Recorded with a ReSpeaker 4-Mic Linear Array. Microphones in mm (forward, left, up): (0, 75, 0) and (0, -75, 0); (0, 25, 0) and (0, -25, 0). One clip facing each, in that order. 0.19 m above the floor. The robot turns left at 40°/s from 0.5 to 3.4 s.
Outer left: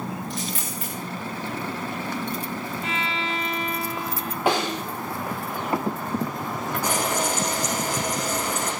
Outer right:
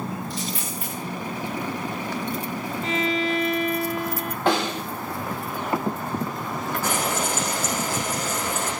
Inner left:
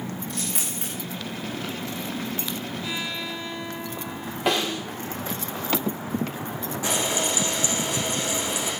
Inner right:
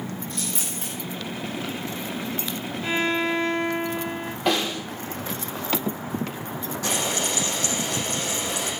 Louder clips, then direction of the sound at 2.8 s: Outer right 8 dB, inner right 12 dB; 40° right (ahead or behind).